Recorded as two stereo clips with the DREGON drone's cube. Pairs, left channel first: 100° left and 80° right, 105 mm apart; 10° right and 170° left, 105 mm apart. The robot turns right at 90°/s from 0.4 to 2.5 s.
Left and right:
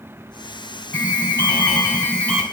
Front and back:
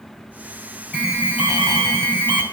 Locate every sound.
0.9 s an alarm: 75° left, 2.5 m; by 2.4 s 155° right, 2.5 m